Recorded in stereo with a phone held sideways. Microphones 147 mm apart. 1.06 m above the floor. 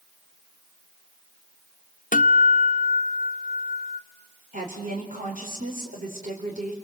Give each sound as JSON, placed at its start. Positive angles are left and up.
{"t": 2.1, "sound": "a guitar", "side_deg": 65, "distance_m": 0.7}
{"t": 4.5, "sound": "a woman speaking", "side_deg": -65, "distance_m": 4.5}